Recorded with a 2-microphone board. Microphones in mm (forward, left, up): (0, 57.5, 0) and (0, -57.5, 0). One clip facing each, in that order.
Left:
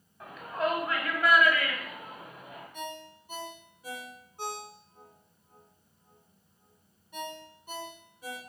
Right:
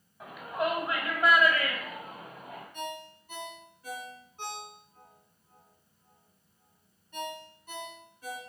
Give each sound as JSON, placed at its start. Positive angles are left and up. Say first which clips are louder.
{"t": 0.2, "sound": "a shout", "louder": "even", "side_deg": -5, "distance_m": 2.0}
{"t": 2.7, "sound": "a ringtone", "louder": "right 1 dB", "side_deg": 15, "distance_m": 1.3}